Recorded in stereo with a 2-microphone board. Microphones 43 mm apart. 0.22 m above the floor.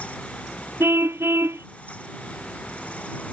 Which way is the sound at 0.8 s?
75° right (ahead or behind).